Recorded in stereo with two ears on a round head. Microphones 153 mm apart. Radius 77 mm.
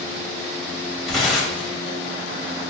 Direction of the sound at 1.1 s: 5° left (ahead or behind).